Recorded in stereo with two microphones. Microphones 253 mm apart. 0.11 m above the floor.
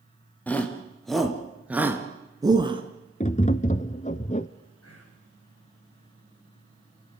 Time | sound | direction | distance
0.5 | a shout | 5° left (ahead or behind) | 2.5 m
3.2 | tapping | 30° left (ahead or behind) | 0.6 m
4.8 | whispering | 70° left (ahead or behind) | 7 m